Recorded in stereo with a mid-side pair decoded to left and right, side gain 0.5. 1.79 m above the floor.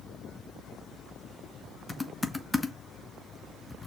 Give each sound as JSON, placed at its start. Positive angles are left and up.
{"t": 1.9, "sound": "typing on a keyboard", "azimuth_deg": 20, "distance_m": 1.0}